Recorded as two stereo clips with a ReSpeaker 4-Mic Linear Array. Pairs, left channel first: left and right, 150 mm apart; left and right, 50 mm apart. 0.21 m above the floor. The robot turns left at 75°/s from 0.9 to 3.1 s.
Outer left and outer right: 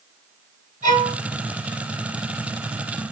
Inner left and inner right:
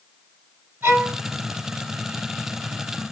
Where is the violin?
60° right (ahead or behind), 1.5 m; by 1.1 s 75° right (ahead or behind), 1.5 m.